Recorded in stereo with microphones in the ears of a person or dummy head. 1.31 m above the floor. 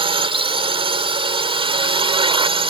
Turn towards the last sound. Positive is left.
turn(degrees=-30)  # may be behind; listen again after turning